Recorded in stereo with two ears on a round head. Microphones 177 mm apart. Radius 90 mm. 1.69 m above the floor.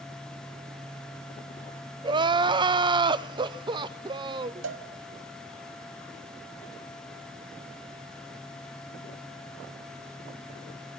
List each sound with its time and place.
2.0 s crying: 25° right (ahead or behind), 0.5 m
4.6 s a cowbell: 65° right (ahead or behind), 1.2 m